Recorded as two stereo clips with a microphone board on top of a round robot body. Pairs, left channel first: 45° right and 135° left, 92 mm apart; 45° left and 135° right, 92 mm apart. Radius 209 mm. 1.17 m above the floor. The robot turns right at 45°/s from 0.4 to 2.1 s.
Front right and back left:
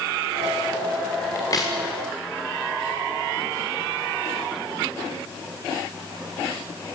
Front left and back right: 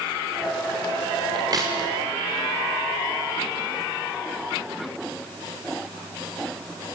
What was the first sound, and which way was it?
A crack, 100° right.